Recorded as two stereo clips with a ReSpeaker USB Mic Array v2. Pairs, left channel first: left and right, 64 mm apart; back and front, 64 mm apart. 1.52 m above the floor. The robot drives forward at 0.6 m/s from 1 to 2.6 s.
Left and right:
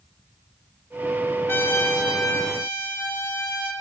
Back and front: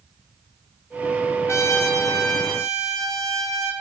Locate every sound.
1.5 s a trumpet: 140° left, 4 m; by 3.7 s 145° left, 4.5 m